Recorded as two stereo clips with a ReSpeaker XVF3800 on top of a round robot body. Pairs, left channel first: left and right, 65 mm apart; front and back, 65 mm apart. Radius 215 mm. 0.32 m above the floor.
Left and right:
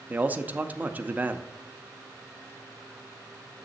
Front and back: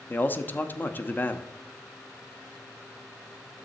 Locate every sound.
0.1 s a man speaking: 40° right, 1.0 m